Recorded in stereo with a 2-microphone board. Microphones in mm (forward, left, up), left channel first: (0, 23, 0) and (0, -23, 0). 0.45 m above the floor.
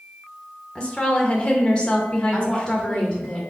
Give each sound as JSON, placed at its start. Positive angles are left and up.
{"t": 0.8, "sound": "a woman speaking", "side_deg": 25, "distance_m": 0.9}
{"t": 2.3, "sound": "a woman speaking", "side_deg": 25, "distance_m": 1.6}